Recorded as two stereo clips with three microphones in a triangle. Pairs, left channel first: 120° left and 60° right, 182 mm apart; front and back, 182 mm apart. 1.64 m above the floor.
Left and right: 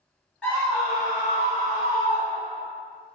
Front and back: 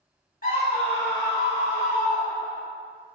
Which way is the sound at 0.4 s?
35° left.